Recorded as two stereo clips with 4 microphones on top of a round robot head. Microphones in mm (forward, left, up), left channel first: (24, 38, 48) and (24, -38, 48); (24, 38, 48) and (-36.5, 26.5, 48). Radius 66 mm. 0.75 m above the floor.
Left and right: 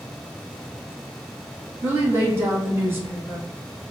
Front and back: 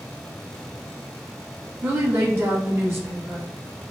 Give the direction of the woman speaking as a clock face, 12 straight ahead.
5 o'clock.